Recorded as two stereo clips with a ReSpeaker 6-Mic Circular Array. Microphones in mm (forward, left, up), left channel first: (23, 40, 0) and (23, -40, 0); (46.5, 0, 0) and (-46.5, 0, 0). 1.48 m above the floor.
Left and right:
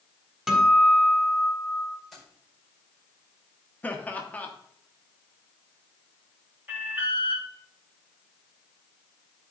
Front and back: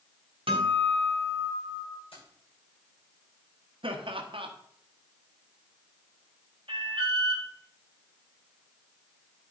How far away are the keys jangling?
About 5.5 m.